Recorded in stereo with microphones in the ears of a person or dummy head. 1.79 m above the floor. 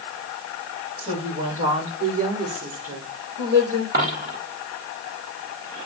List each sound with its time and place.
1.0 s a woman speaking: 35° right (ahead or behind), 6.5 m; by 3.8 s 50° right (ahead or behind), 6.5 m
3.9 s a dropped coin: 45° right (ahead or behind), 2 m